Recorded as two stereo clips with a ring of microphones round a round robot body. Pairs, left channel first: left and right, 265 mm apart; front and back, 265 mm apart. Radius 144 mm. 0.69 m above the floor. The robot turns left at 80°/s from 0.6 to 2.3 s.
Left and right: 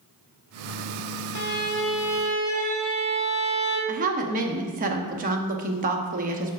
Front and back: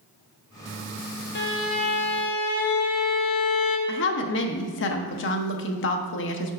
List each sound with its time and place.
1.4 s a violin: 50° left, 0.9 m; by 3.8 s 25° right, 0.9 m
3.9 s a woman speaking: 35° right, 0.7 m